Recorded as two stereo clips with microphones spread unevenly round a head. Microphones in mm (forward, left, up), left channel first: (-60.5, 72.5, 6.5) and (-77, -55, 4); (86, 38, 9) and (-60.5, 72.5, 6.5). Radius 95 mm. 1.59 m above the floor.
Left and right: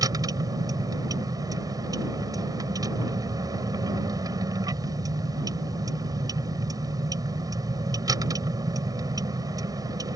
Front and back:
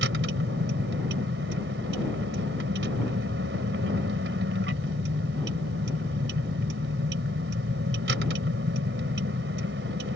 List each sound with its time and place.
0.0 s a vehicle: 160° right